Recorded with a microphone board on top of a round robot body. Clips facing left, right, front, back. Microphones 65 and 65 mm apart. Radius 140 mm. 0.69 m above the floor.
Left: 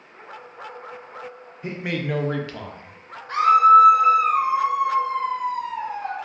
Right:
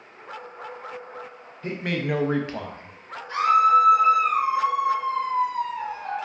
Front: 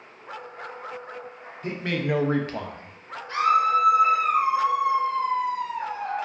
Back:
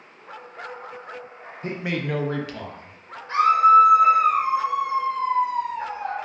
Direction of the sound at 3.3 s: 125° left.